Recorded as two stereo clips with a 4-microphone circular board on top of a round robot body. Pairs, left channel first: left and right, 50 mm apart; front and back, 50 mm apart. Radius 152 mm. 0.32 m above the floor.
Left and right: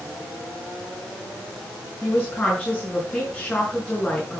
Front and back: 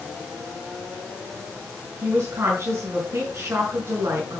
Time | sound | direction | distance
2.0 | a woman speaking | 155° left | 5.5 m